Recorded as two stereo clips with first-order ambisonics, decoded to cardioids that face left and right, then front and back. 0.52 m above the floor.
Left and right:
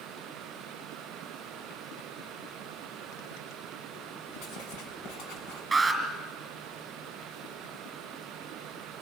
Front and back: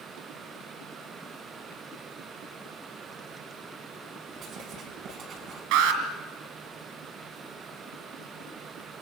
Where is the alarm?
170° right, 3.5 m.